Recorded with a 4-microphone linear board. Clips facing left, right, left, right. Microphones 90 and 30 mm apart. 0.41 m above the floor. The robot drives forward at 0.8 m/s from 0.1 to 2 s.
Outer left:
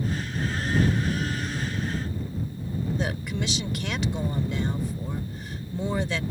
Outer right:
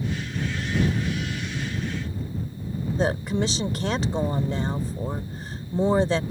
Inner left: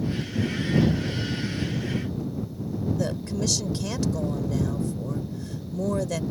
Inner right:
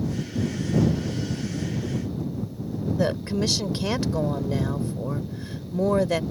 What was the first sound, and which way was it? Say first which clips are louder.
A woman speaking: outer right 6 dB, inner right 3 dB; 35° right (ahead or behind).